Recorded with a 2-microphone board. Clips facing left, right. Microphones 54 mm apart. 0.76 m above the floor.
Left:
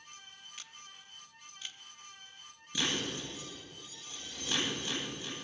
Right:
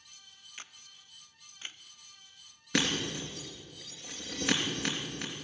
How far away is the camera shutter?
About 0.6 m.